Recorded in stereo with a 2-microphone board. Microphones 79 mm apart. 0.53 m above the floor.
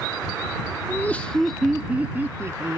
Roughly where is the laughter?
Left.